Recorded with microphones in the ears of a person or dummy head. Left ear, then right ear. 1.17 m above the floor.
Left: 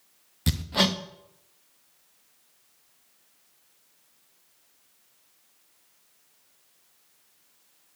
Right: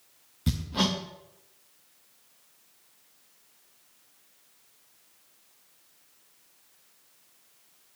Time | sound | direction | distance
0.5 | hammering | 15° left (ahead or behind) | 0.5 m